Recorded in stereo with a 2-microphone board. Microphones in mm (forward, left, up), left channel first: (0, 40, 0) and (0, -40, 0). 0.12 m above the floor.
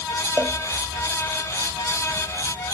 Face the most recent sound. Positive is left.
turn(degrees=-30)  # may be behind; listen again after turning